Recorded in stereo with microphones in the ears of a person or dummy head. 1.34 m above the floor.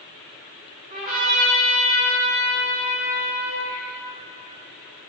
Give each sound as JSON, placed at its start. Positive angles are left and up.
{"t": 0.9, "sound": "a trumpet", "side_deg": -40, "distance_m": 2.5}